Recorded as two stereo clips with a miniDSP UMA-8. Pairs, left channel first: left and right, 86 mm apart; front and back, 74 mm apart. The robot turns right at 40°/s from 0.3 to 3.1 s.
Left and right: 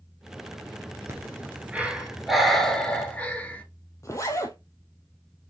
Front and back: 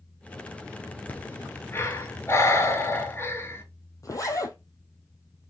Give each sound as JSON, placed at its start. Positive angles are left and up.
{"t": 1.1, "sound": "breathing", "azimuth_deg": -55, "distance_m": 1.0}
{"t": 4.0, "sound": "a zipper", "azimuth_deg": 35, "distance_m": 0.7}